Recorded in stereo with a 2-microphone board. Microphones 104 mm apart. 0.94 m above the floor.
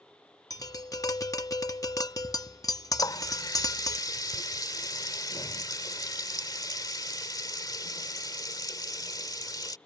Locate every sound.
0.5 s tapping: 35° left (ahead or behind)
3.0 s a running tap: 40° left (ahead or behind)